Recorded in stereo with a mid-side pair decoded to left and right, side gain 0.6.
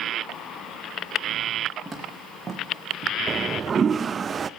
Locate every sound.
1.9 s footsteps: 15° right, 4 m; by 3.1 s 40° right, 3 m
3.3 s a toilet flushing: 35° right, 0.5 m